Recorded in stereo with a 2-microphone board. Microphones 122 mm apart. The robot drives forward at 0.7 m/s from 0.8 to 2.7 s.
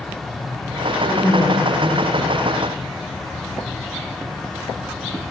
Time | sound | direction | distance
1.0 | a woman speaking | 80° left | 1.5 m